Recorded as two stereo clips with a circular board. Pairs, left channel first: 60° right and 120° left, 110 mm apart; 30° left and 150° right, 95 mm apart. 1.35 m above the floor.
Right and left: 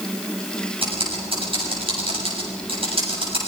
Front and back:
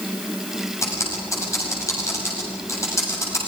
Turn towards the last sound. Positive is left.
turn(degrees=85)